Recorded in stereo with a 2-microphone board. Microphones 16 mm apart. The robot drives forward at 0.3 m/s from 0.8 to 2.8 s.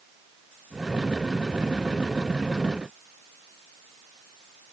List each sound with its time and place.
Only background noise.